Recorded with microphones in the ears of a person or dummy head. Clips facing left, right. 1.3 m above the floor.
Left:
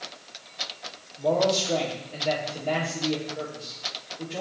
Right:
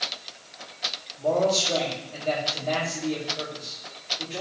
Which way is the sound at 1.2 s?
15° left (ahead or behind).